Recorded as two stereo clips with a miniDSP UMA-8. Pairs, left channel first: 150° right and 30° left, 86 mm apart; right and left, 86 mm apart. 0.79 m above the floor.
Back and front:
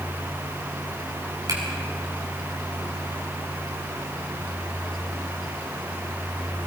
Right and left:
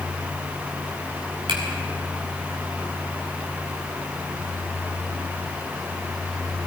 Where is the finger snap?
75° left, 8 m.